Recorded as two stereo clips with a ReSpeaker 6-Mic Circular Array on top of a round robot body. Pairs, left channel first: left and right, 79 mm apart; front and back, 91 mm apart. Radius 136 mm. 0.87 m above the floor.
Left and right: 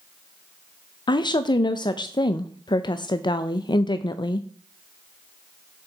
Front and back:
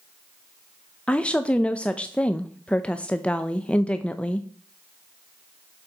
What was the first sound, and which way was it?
A woman speaking, 75° left.